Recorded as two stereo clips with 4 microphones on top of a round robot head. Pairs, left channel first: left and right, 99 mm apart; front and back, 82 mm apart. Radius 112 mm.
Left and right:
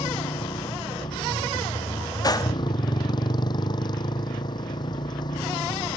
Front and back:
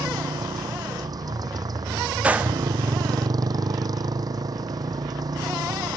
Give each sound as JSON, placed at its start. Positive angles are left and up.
{"t": 0.0, "sound": "a motorcycle", "azimuth_deg": 145}
{"t": 2.2, "sound": "a gunshot", "azimuth_deg": 115}